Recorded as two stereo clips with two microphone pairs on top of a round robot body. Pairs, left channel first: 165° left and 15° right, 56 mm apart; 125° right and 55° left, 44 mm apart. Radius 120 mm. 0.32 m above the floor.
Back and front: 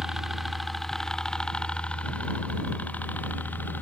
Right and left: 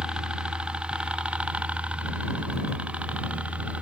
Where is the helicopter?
50° left; by 3.8 s 110° left.